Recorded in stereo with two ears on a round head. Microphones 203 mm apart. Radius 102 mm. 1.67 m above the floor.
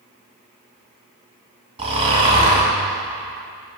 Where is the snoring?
25° right (ahead or behind), 2.5 m.